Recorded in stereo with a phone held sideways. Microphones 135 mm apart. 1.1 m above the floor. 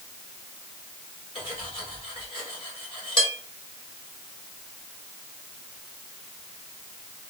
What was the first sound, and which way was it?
Cutlery clinking, 40° left (ahead or behind).